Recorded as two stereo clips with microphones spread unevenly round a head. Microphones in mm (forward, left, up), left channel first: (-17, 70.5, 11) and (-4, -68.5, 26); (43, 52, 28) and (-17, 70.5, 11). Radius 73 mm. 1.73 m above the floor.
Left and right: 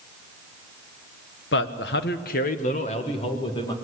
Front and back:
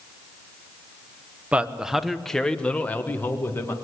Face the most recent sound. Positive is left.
turn(degrees=30)